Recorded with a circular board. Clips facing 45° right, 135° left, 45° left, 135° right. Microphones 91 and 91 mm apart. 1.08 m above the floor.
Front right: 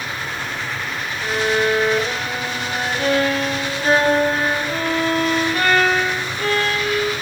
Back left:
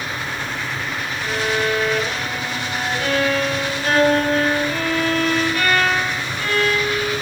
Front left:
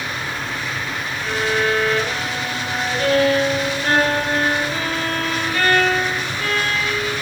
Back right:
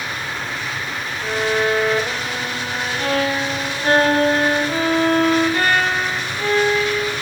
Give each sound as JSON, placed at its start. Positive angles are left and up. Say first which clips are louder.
{"t": 1.2, "sound": "a violin", "louder": "front right 3 dB, back right 1 dB", "azimuth_deg": -80, "distance_m": 0.7}